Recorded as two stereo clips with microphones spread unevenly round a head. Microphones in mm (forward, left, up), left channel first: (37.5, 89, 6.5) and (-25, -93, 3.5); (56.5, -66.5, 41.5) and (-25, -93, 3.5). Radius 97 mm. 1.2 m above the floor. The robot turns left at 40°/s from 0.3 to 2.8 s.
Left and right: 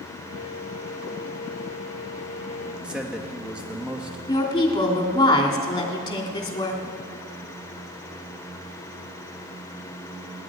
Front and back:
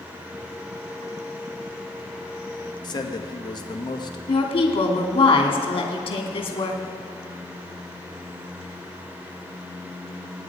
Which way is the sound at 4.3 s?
Straight ahead.